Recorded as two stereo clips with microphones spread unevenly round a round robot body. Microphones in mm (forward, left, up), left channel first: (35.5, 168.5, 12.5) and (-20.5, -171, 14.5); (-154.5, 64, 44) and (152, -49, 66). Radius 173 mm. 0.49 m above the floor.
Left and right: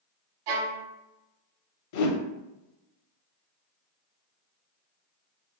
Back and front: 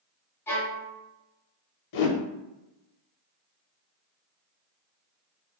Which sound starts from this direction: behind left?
A whoosh, at 1.9 s.